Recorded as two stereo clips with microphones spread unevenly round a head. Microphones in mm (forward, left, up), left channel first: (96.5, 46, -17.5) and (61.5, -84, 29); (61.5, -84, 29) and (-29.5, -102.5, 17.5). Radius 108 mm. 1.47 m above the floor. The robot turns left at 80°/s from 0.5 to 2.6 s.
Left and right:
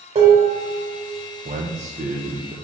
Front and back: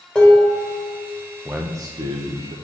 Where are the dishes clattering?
70° right, 4 m; by 1.0 s 110° right, 4 m.